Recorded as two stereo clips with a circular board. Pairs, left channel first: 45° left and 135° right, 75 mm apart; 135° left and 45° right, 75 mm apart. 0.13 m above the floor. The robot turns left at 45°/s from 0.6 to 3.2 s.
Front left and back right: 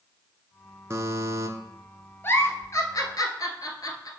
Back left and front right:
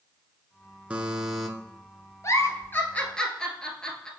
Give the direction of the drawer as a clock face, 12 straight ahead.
No drawer in this recording.